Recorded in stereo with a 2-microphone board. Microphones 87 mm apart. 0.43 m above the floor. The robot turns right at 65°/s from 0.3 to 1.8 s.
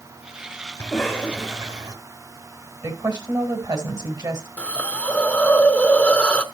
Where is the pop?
No pop in this recording.